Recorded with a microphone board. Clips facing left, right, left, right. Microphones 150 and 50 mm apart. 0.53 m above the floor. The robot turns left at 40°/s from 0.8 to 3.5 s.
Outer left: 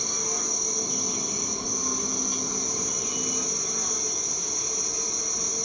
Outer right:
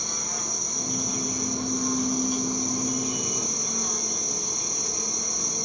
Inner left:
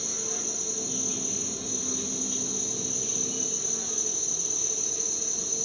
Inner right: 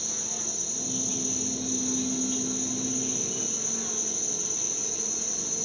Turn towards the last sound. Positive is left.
turn(degrees=-55)